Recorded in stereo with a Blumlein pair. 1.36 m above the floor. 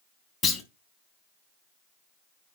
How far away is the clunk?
About 1.4 m.